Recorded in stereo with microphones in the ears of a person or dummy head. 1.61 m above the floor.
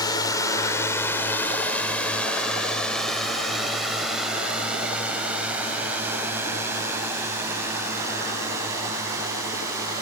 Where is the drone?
20° left (ahead or behind); by 10.0 s 20° right (ahead or behind).